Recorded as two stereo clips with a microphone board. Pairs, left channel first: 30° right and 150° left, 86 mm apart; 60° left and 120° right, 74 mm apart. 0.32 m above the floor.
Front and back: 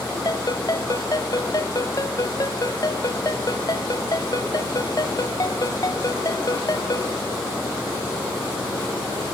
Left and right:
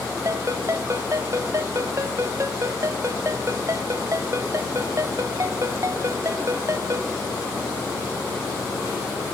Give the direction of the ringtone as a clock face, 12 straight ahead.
2 o'clock.